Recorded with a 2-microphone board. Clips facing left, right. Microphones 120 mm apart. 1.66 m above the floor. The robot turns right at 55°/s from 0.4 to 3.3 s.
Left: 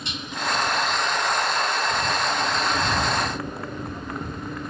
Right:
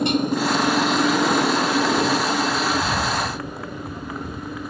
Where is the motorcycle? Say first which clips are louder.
Right 11 dB; 55° right (ahead or behind); by 4.7 s 5° right (ahead or behind).